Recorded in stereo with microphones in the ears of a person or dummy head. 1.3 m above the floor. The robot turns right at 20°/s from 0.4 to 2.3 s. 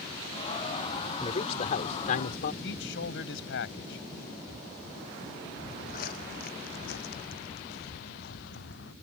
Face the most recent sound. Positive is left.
turn(degrees=70)  # may be behind; listen again after turning